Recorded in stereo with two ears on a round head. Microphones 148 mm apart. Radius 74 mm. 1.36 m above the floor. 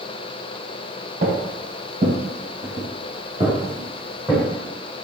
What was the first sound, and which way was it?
Footsteps, 50° right (ahead or behind).